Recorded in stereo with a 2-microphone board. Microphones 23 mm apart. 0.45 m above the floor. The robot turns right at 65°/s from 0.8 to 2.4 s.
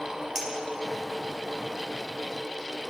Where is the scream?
I don't hear a scream.